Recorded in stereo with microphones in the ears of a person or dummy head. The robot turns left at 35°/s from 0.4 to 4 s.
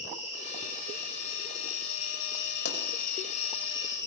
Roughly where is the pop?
Left.